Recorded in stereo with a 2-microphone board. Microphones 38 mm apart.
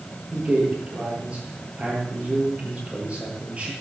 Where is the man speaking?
35° right (ahead or behind), 9.5 m.